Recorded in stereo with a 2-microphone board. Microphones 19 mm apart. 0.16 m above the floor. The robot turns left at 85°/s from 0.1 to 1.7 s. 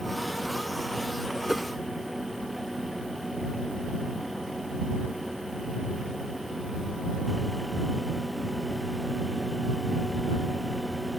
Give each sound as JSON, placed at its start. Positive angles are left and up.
{"t": 1.5, "sound": "a whoosh", "side_deg": -15}